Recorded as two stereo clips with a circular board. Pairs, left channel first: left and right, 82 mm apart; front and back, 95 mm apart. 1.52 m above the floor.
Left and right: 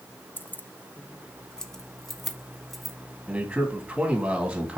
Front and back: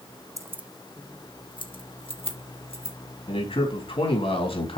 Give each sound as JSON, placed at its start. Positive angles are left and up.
{"t": 0.4, "sound": "keys jangling", "azimuth_deg": 150, "distance_m": 0.6}
{"t": 3.3, "sound": "a man speaking", "azimuth_deg": -15, "distance_m": 3.0}